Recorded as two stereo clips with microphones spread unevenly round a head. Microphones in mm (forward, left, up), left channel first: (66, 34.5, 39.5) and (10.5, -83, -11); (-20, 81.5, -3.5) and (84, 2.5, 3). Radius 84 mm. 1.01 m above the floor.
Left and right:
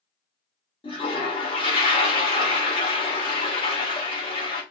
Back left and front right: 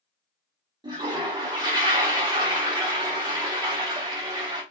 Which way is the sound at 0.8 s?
20° left.